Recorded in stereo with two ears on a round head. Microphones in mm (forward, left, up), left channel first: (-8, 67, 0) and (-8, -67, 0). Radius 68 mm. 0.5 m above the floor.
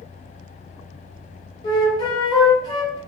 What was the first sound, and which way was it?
A flute, 30° left (ahead or behind).